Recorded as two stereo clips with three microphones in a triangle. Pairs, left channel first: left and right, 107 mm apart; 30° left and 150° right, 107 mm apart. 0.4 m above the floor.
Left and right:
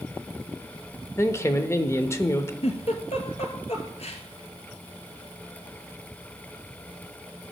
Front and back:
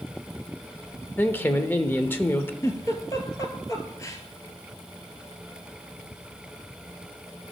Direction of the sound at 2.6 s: 90° left.